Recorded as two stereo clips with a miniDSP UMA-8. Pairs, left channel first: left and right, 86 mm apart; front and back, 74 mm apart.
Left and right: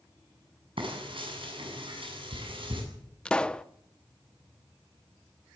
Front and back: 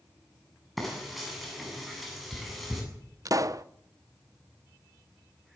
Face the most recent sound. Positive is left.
turn(degrees=165)